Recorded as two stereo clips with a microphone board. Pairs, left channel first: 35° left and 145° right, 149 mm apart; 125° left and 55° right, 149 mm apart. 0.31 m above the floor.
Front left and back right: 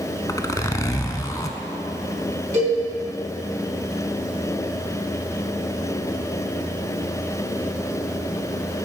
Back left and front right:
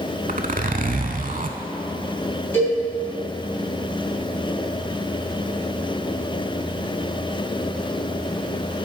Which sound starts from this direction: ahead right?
A zipper, at 0.3 s.